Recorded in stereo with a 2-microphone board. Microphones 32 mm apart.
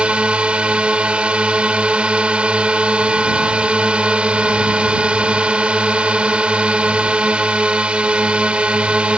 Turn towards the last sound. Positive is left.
turn(degrees=-40)  # may be behind; listen again after turning